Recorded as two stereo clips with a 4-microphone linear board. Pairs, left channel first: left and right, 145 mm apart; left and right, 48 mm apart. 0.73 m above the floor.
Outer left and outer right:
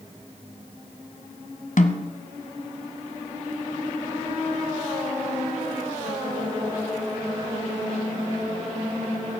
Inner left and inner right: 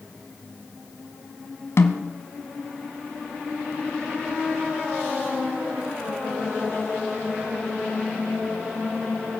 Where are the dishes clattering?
I don't hear dishes clattering.